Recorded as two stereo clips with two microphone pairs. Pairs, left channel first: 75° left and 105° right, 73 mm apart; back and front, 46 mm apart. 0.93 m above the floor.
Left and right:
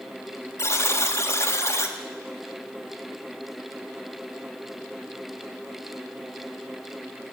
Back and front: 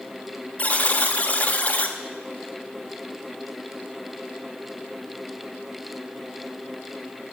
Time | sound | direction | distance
0.6 | a buzzer | 125° left | 0.9 m